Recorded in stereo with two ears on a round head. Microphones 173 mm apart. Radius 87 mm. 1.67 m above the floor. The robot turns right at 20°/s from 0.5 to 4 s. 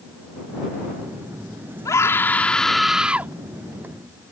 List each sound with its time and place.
1.9 s a scream: 20° left (ahead or behind); by 3.3 s 10° right (ahead or behind)